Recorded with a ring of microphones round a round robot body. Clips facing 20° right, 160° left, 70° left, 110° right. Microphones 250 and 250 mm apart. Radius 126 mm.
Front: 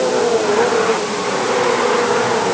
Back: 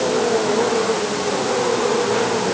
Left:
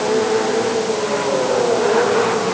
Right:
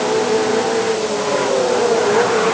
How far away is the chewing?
No chewing in this recording.